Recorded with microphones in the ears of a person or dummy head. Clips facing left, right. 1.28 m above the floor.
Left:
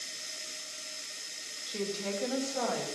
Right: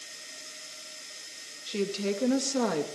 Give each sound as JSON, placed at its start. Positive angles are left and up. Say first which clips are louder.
{"t": 1.7, "sound": "a woman speaking", "louder": "right 5 dB", "side_deg": -45, "distance_m": 1.6}